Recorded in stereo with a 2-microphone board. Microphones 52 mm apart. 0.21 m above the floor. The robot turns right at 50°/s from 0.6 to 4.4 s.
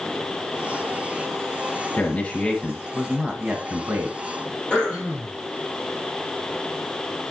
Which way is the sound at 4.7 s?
15° left (ahead or behind).